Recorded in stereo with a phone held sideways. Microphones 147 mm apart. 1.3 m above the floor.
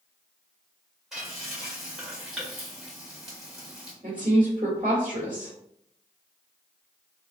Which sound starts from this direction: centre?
Frying, at 1.1 s.